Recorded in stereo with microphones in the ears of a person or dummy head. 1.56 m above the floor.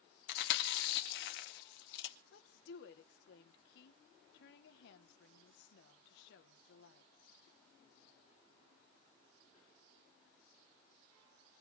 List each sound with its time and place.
0.3 s chewing: 70° left (ahead or behind), 1.8 m
2.3 s a woman speaking: 75° left (ahead or behind), 1.5 m